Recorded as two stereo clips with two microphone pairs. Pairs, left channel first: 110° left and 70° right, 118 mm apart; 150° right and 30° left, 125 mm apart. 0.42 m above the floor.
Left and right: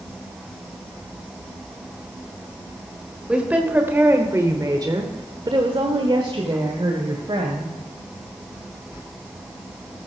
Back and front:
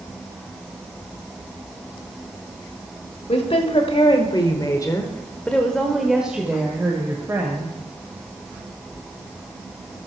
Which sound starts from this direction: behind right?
A woman speaking, at 3.3 s.